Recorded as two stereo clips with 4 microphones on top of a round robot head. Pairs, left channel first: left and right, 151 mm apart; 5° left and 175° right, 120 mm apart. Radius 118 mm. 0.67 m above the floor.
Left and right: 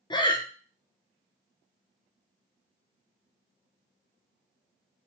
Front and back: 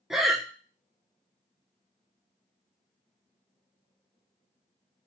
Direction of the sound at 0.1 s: 100° left.